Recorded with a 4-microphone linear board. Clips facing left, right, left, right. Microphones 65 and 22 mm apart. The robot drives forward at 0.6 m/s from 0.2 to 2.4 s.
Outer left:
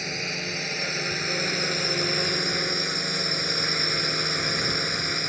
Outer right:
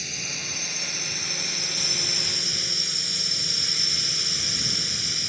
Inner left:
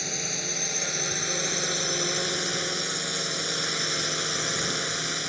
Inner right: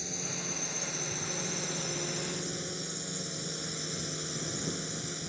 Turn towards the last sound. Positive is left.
turn(degrees=45)  # may be behind; listen again after turning